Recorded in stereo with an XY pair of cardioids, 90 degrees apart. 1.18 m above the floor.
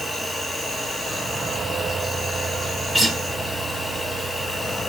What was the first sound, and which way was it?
An insect, 25° left.